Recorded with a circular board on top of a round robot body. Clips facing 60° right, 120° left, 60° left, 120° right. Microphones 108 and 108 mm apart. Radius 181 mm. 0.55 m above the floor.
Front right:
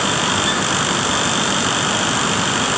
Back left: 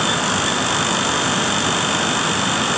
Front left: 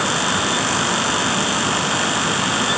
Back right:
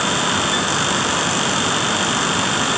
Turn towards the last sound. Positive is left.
No sound to turn to.